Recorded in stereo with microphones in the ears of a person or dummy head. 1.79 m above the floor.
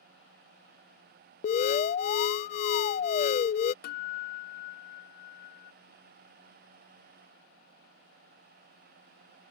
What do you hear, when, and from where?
1.4 s an alarm: 40° left (ahead or behind)
3.8 s a guitar: 60° left (ahead or behind)